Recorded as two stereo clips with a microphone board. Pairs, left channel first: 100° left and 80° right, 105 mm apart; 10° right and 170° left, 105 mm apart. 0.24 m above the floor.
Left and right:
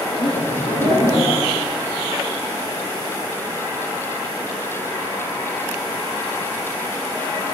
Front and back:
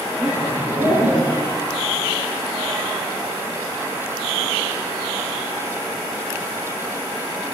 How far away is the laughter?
About 8 m.